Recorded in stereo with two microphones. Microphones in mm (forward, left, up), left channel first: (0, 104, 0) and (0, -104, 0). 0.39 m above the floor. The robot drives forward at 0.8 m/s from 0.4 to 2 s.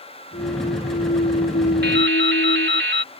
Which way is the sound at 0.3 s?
60° left (ahead or behind).